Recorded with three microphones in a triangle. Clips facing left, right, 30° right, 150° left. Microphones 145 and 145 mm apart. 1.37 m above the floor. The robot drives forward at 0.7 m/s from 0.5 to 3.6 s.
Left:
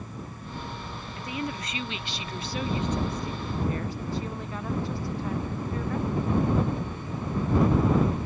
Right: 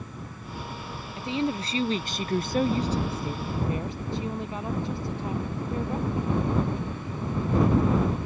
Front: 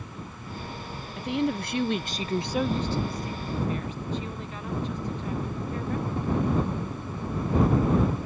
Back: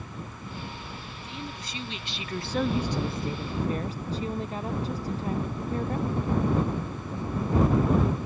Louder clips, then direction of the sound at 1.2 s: Right 6 dB, front 16 dB; 20° right.